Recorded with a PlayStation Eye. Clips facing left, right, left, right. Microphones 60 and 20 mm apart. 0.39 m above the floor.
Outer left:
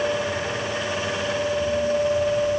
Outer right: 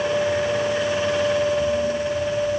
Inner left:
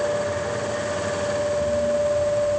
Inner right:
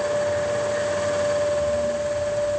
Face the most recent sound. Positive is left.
No sound to turn to.